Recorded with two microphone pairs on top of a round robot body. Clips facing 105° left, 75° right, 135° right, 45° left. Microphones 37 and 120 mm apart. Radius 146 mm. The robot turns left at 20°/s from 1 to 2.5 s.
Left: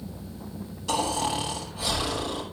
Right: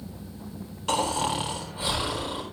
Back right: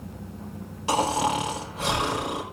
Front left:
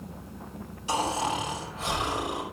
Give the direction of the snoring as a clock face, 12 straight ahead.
4 o'clock.